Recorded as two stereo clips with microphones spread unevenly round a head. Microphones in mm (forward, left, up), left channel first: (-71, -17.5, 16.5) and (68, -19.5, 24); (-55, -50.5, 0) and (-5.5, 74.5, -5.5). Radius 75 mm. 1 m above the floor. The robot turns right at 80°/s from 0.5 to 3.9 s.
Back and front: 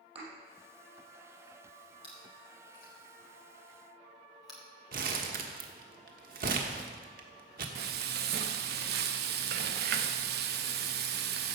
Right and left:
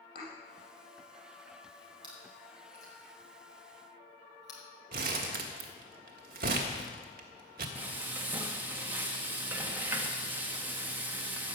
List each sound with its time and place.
0.1 s a thud: 50° right, 5 m
2.0 s chewing: 120° left, 4 m; by 4.6 s 90° right, 4 m
4.9 s crumpling: 35° left, 1.4 m
7.8 s frying: 10° right, 1.0 m